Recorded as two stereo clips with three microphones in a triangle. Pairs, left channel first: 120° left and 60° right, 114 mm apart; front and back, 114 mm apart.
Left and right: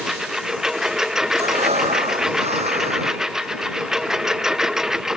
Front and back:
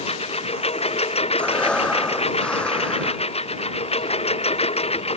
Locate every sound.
0.0 s a lawn mower: 25° left
1.4 s breathing: 80° right